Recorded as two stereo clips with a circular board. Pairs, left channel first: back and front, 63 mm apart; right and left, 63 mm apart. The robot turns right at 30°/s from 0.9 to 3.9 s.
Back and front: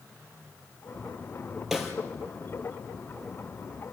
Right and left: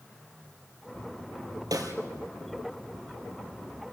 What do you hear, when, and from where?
1.7 s a snare drum: 85° left, 3 m; by 1.9 s 90° left, 3 m